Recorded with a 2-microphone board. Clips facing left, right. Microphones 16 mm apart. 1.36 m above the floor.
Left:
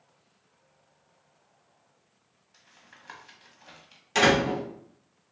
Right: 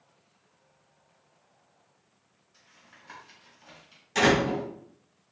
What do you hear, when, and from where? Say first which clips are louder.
2.5 s tapping: left 1 dB; 35° left (ahead or behind), 1.4 m
4.2 s a door slam: left 1 dB; 40° left (ahead or behind), 2 m